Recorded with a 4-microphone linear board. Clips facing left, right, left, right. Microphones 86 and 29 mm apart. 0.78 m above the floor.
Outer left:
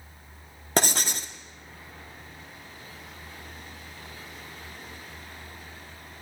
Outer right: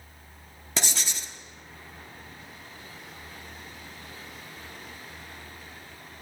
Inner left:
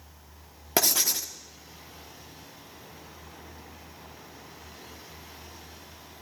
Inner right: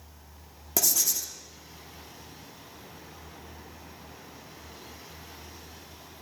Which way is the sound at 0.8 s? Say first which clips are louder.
Outer left 7 dB, inner left 3 dB; 45° left (ahead or behind).